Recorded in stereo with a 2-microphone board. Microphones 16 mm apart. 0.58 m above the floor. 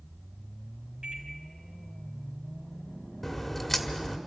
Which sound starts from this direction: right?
A microwave, at 1.0 s.